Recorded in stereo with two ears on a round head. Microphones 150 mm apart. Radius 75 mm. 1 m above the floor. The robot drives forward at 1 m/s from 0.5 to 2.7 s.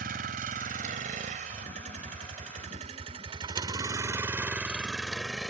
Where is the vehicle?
55° right (ahead or behind); by 5.5 s 5° left (ahead or behind).